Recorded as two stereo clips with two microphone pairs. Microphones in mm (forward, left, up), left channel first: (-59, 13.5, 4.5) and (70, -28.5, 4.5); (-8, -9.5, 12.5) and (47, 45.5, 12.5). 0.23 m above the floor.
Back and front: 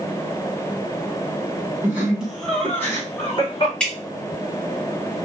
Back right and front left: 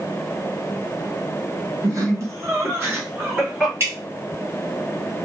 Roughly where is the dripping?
Left.